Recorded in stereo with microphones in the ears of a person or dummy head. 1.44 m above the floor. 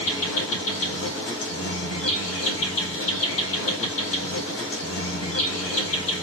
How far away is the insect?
About 2 m.